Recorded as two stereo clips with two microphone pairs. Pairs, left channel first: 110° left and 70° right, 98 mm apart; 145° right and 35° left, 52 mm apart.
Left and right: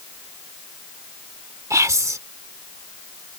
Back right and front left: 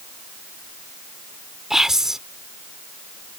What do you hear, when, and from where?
1.7 s whispering: 45° right